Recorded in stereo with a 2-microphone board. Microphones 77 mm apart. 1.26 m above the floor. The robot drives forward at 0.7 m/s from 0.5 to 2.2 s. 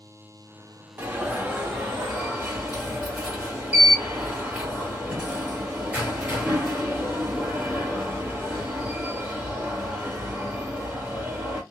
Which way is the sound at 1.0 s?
25° right (ahead or behind).